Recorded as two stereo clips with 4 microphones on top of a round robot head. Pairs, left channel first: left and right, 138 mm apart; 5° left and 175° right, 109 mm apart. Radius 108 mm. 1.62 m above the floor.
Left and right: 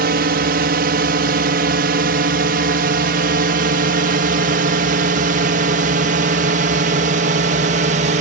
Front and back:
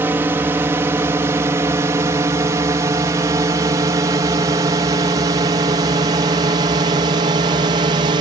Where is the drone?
100° right; by 8.2 s 125° right.